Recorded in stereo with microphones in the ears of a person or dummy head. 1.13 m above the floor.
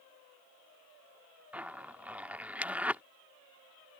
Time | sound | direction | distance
1.5 | a zipper | 10° right (ahead or behind) | ?